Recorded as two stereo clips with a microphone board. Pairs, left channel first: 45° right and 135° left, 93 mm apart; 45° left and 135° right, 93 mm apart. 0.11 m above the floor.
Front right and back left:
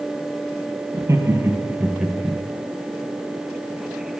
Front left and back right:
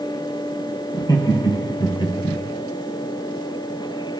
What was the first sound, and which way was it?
Laughter, 85° left.